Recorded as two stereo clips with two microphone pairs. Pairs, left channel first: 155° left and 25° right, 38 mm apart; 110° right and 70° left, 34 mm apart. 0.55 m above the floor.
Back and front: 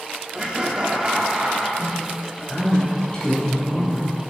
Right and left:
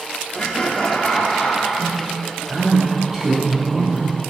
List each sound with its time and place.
0.3 s laughter: 55° right, 1.1 m; by 1.7 s 85° right, 1.5 m
1.8 s a man speaking: 135° left, 1.4 m